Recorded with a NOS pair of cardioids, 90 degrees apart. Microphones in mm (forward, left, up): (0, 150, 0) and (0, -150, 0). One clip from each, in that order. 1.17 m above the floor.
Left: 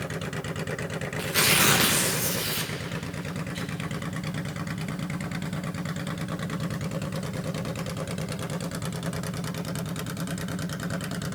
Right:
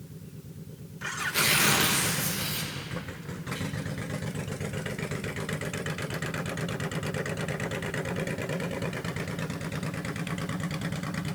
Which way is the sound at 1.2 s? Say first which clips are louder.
Left 2 dB; 15° left.